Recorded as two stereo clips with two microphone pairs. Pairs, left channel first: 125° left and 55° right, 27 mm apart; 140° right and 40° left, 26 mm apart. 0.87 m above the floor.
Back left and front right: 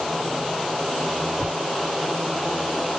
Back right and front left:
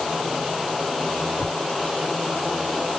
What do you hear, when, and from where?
1.4 s tapping: 165° right, 1.7 m